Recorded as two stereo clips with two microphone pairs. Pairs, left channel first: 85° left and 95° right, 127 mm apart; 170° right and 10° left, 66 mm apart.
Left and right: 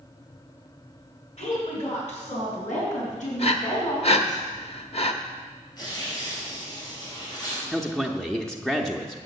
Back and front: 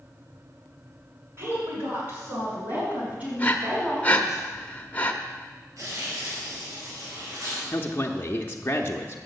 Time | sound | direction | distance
1.4 | a woman speaking | 55° left | 5.5 m
3.4 | breathing | 125° left | 0.7 m
5.8 | tearing paper | 30° left | 4 m
7.7 | a man speaking | 170° left | 0.7 m